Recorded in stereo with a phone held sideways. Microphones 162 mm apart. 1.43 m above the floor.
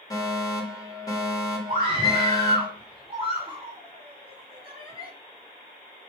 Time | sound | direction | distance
0.1 | a fire alarm | 25° left (ahead or behind) | 3.5 m
1.7 | a scream | 35° right (ahead or behind) | 5.5 m